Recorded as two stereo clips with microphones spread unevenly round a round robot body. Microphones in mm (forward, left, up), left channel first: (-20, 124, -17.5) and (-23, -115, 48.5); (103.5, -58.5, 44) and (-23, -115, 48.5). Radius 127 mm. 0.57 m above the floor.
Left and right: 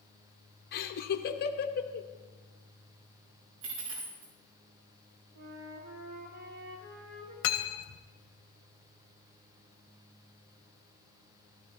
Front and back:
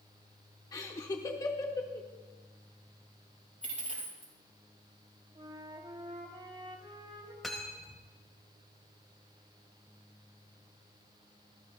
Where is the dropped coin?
120° right, 5 m.